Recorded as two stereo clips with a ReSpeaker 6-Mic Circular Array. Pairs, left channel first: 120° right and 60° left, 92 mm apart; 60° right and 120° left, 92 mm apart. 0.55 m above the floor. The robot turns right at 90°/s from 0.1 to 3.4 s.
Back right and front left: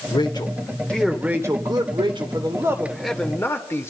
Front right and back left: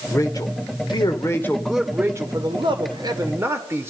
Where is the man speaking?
115° right, 2.0 m; by 3.9 s straight behind, 2.0 m.